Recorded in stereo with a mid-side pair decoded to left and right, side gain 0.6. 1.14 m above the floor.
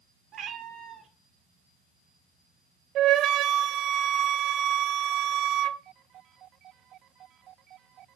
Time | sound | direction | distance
0.3 | a cat meowing | 40° right | 1.6 m
3.0 | a flute | 60° right | 0.6 m